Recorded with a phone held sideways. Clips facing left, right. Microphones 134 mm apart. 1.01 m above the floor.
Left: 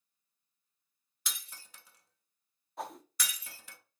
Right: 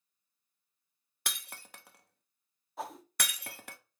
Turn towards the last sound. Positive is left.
turn(degrees=0)  # may be behind; listen again after turning